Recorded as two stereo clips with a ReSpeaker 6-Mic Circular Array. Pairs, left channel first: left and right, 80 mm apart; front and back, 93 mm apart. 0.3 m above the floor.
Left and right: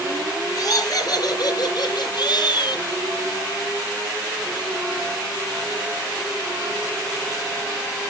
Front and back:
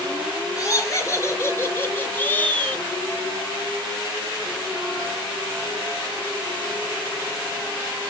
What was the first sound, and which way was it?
Laughter, 50° left.